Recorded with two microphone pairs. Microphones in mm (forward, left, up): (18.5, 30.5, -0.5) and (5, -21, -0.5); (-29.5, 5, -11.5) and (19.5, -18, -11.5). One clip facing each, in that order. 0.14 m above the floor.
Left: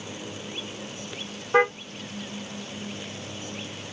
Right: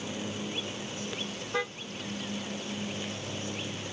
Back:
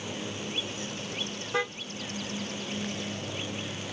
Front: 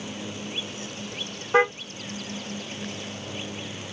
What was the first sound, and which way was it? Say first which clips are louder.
A car horn: left 12 dB, front 10 dB; 30° left.